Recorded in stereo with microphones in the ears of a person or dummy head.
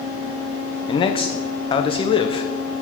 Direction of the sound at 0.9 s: 30° left (ahead or behind).